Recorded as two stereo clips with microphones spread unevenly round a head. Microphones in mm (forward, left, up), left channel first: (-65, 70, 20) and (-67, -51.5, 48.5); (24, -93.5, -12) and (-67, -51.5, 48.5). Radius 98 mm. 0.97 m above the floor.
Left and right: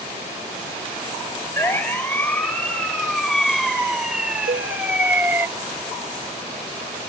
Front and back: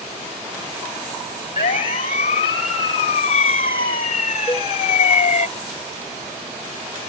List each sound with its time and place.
1.6 s a siren: 10° left; by 5.5 s 15° right
4.5 s a cowbell: 80° right